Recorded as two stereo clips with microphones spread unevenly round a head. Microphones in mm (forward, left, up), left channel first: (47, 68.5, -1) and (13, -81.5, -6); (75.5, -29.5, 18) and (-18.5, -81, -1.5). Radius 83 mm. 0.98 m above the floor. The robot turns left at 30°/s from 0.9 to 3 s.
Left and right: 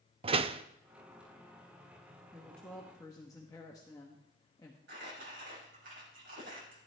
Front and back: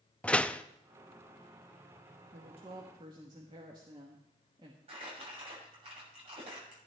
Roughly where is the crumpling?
Behind right.